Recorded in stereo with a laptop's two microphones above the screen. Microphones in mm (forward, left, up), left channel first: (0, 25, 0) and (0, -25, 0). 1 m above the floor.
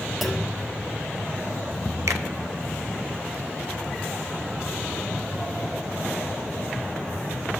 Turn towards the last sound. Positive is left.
turn(degrees=-75)  # may be behind; listen again after turning